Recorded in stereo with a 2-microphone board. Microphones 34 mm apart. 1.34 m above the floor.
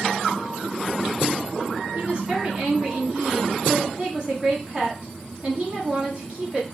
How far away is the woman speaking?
About 1.4 m.